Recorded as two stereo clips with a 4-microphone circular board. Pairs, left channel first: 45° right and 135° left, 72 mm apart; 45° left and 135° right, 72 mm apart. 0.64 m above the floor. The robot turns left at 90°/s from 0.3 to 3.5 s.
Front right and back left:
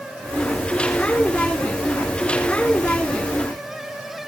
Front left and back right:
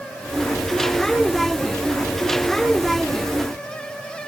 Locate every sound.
Only background noise.